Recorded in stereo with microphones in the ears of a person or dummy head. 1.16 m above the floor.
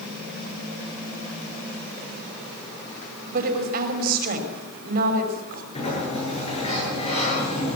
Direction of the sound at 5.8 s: 40° left (ahead or behind).